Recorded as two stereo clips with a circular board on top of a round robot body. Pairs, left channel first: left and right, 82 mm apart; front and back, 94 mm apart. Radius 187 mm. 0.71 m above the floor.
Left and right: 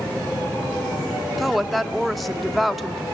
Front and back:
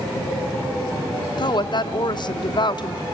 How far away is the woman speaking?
About 1.1 m.